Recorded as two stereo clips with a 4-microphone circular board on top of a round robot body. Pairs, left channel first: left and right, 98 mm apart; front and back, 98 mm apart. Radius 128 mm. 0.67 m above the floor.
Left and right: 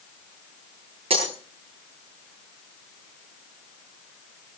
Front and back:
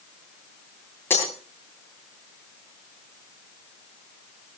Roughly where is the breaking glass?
Right.